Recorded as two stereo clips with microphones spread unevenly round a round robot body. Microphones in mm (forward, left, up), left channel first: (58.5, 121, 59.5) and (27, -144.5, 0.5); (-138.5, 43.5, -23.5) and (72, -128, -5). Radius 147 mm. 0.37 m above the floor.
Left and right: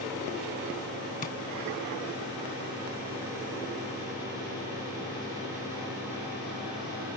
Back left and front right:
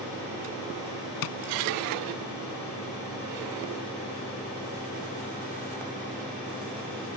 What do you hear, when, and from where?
1.2 s tapping: 150° left